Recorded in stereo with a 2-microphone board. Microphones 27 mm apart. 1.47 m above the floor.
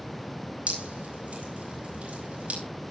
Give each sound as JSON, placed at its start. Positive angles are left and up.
{"t": 0.7, "sound": "dripping", "side_deg": -50, "distance_m": 5.0}